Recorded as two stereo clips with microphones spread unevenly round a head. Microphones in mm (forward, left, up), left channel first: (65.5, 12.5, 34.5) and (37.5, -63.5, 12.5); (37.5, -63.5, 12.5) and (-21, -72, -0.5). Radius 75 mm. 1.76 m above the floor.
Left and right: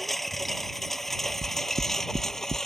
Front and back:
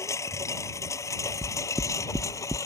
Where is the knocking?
100° right.